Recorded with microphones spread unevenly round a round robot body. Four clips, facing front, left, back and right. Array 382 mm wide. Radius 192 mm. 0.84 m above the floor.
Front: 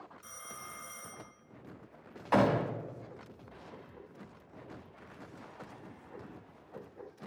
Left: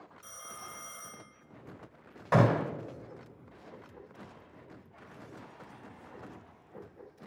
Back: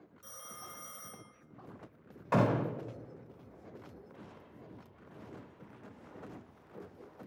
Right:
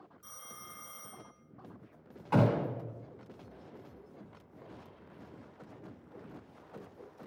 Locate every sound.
0.2 s a phone ringing: 135° left, 3 m
2.3 s a gunshot: 115° left, 3 m